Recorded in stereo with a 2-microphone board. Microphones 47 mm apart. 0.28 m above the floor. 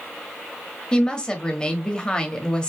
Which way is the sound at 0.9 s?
20° left (ahead or behind).